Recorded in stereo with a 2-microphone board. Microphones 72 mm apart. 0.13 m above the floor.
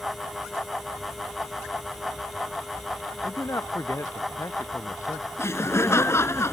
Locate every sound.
3.2 s a man speaking: 45° left (ahead or behind)
5.4 s laughter: 40° left (ahead or behind)